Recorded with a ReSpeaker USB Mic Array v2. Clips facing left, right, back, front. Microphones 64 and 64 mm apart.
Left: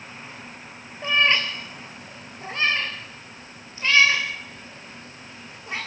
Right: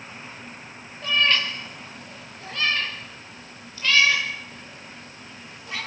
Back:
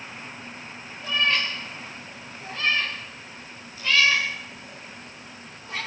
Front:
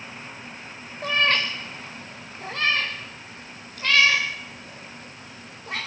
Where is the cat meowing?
25° left, 3.5 m; by 5.8 s 30° left, 10.5 m.